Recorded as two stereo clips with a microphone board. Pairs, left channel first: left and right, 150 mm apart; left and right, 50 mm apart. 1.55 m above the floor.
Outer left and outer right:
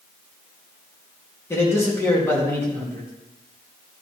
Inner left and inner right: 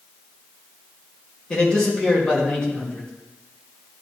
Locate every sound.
1.5 s a man speaking: 15° left (ahead or behind), 2.5 m